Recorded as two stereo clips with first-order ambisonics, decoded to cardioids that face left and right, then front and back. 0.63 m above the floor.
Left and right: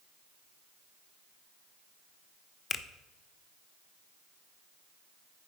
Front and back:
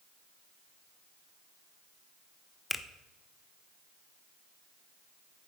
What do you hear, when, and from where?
2.7 s a finger snap: 65° left, 0.5 m